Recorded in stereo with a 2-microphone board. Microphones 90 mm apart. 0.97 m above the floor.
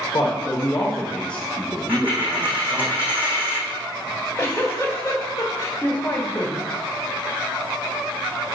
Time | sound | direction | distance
0.1 | a man speaking | 40° left (ahead or behind) | 1.4 m
1.9 | a dropped coin | 15° right (ahead or behind) | 4 m
4.0 | a giggle | 25° left (ahead or behind) | 1.7 m